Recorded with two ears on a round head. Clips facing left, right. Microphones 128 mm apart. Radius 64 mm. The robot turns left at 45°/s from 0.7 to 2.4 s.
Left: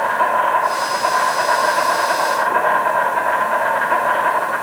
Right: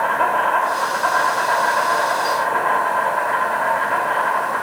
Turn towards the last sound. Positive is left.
turn(degrees=105)